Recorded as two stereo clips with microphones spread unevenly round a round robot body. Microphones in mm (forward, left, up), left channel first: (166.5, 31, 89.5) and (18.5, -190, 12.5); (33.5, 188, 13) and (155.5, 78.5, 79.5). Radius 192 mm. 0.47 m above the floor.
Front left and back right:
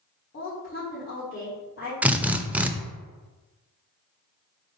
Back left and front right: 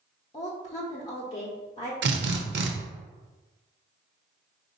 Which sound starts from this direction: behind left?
A woman speaking, at 0.3 s.